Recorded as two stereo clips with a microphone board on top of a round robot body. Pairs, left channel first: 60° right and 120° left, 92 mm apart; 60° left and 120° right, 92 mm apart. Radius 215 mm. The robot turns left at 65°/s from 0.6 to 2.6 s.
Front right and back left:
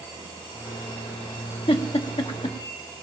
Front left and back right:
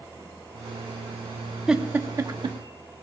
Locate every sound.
1.7 s a giggle: 35° right, 1.1 m; by 2.6 s 90° right, 1.1 m